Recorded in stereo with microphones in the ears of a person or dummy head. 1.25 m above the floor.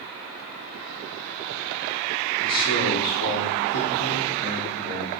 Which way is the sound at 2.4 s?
75° left (ahead or behind).